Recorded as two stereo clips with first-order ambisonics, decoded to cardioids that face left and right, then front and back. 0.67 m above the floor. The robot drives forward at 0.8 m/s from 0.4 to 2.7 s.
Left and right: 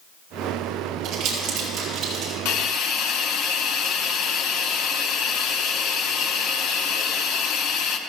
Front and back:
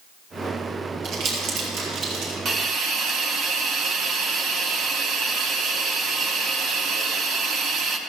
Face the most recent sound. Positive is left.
turn(degrees=130)